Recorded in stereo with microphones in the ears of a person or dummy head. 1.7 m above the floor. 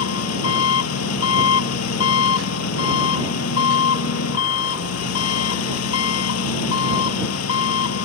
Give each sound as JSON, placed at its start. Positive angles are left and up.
{"t": 0.0, "sound": "an engine running", "side_deg": 85}